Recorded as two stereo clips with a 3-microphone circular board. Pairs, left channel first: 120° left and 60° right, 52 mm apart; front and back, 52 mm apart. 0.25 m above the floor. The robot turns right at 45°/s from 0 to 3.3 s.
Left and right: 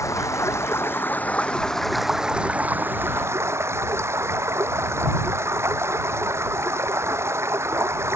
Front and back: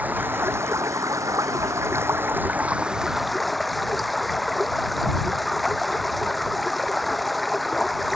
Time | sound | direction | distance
0.0 | running water | 120° left | ?